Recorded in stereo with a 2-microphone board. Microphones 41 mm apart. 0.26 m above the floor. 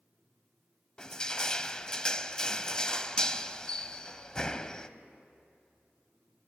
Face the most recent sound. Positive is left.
turn(degrees=20)  # may be behind; listen again after turning